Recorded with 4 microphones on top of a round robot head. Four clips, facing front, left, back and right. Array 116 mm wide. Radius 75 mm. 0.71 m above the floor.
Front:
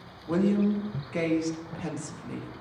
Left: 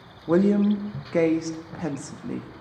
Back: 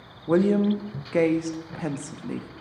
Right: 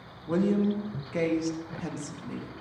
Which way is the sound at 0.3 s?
130° left.